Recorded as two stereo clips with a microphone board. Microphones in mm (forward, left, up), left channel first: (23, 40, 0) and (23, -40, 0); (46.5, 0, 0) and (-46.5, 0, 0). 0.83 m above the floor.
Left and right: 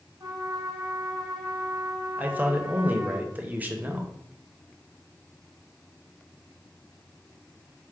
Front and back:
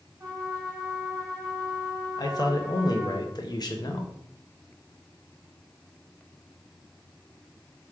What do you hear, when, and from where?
0.2 s a trumpet: 130° right, 1.6 m
2.2 s a man speaking: 25° right, 0.6 m